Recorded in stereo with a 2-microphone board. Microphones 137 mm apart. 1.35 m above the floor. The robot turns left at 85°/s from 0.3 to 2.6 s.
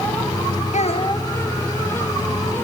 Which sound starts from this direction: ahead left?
A child speaking, at 0.7 s.